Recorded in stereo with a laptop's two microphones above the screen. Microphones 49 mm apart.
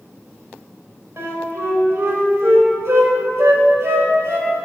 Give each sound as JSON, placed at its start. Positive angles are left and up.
{"t": 1.2, "sound": "a flute", "side_deg": -65, "distance_m": 1.9}